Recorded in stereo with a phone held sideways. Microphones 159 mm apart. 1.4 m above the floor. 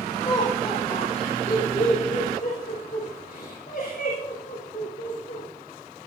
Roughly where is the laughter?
Left.